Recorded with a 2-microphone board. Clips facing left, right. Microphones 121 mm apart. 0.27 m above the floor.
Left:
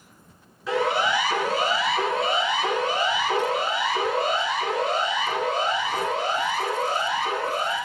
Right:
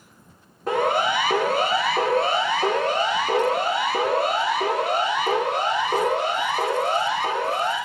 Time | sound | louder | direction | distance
0.7 | a siren | right 2 dB | 50° right (ahead or behind) | 3 m